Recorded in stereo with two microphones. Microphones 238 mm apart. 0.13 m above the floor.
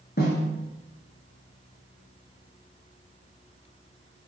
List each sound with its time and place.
0.2 s a snare drum: 40° left (ahead or behind), 1.0 m